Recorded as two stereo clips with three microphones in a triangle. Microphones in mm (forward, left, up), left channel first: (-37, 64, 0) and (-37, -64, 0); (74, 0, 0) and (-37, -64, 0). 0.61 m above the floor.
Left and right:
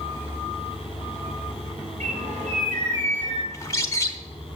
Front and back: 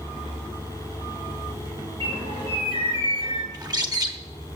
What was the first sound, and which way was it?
A bird, 105° right.